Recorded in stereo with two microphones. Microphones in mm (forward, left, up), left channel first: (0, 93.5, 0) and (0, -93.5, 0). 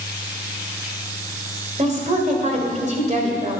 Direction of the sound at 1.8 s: 40° right (ahead or behind).